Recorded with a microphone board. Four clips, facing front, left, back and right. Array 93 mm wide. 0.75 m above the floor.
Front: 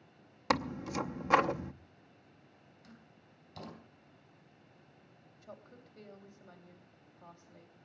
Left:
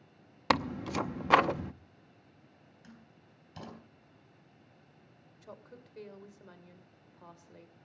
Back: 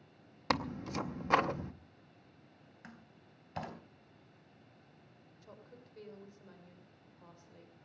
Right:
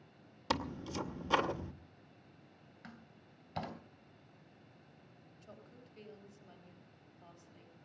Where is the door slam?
145° right, 3.5 m.